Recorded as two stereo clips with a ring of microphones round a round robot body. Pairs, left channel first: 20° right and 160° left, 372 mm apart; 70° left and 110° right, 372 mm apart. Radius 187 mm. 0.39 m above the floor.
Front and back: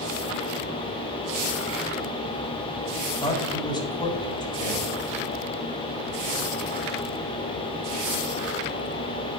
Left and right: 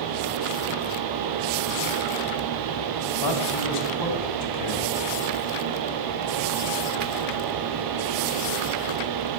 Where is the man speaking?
55° left, 3.5 m.